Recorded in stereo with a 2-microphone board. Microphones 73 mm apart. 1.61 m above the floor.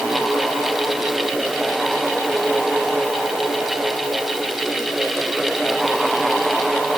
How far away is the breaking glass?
No breaking glass in this recording.